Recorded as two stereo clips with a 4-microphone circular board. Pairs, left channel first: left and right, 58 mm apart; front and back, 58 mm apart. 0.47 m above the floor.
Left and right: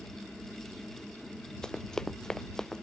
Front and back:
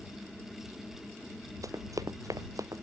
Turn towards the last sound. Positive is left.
turn(degrees=170)